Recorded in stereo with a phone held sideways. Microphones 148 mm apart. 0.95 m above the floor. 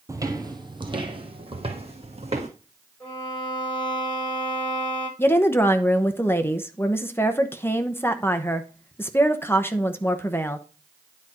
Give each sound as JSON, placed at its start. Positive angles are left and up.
{"t": 0.1, "sound": "footsteps", "side_deg": -20, "distance_m": 1.1}
{"t": 3.0, "sound": "a violin", "side_deg": 10, "distance_m": 7.0}
{"t": 5.2, "sound": "a woman speaking", "side_deg": 15, "distance_m": 0.9}